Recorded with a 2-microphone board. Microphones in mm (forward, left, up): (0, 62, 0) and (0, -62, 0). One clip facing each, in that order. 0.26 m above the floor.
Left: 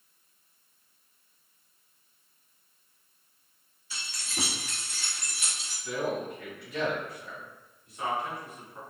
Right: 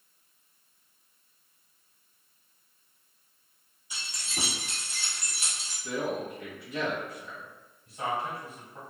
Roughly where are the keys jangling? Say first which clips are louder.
Even; centre.